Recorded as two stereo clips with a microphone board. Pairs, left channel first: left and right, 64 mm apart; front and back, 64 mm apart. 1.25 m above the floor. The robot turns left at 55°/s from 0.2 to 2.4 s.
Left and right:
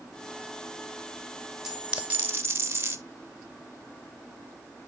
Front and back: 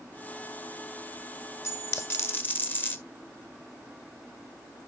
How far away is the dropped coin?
About 1.1 m.